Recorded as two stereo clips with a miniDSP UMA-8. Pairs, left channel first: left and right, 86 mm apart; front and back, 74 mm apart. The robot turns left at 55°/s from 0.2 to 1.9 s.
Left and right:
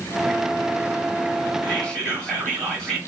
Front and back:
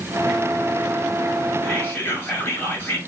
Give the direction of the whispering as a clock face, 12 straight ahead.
11 o'clock.